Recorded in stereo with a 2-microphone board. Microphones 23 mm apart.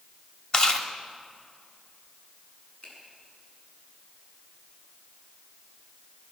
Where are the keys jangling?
I don't hear keys jangling.